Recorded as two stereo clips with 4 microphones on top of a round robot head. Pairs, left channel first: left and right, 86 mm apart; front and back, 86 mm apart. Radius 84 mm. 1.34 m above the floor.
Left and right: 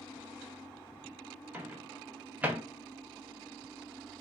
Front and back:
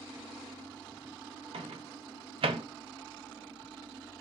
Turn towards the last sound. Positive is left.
turn(degrees=-165)